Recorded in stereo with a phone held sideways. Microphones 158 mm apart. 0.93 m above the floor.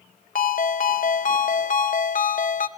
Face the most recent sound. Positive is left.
turn(degrees=60)  # may be behind; listen again after turning